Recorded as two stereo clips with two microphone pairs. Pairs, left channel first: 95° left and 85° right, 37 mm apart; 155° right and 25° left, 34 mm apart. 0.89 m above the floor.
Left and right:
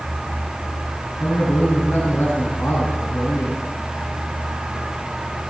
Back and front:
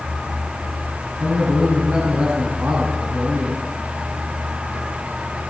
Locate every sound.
1.2 s a man speaking: 65° left, 8 m